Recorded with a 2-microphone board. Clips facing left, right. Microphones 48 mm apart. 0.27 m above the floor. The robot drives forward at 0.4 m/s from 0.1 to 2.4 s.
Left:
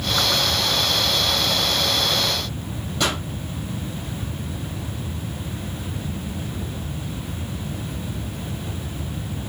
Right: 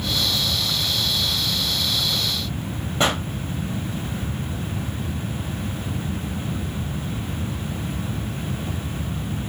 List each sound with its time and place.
3.0 s a pop: 30° right (ahead or behind), 3.5 m